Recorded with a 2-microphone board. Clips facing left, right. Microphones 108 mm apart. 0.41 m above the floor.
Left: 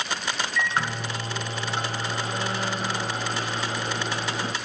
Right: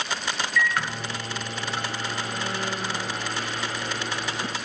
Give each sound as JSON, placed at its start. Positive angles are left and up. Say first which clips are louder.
{"t": 0.6, "sound": "a microwave", "louder": "right 1 dB", "side_deg": 25, "distance_m": 1.3}